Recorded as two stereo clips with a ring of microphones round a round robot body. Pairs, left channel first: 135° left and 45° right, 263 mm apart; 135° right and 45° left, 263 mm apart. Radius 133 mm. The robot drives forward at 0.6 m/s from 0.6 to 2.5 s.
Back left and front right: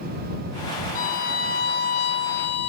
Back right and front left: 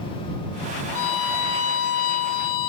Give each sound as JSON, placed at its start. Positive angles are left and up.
{"t": 0.9, "sound": "a violin", "azimuth_deg": -165}